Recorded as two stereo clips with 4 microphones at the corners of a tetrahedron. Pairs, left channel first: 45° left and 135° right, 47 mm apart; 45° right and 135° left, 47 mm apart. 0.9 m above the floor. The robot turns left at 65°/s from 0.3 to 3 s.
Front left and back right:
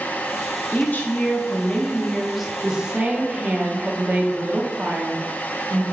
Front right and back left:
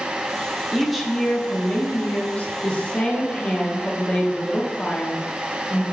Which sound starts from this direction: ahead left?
A woman speaking, at 0.7 s.